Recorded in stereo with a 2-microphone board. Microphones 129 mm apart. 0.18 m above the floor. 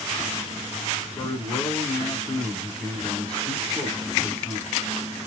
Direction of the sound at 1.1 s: 10° left (ahead or behind).